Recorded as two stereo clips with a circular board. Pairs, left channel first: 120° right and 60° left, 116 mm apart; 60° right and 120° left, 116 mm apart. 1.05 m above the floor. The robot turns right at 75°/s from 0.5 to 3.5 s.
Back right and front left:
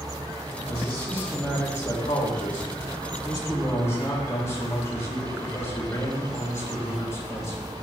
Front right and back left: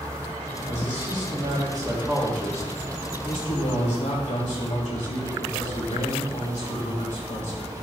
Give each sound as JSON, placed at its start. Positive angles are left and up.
{"t": 0.7, "sound": "a man speaking", "azimuth_deg": 95, "distance_m": 2.5}